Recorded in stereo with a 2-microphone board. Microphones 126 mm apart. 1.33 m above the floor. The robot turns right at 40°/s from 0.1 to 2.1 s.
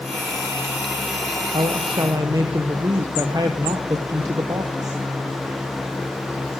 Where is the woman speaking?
50° right (ahead or behind), 0.8 m; by 5.0 s 30° right (ahead or behind), 0.8 m.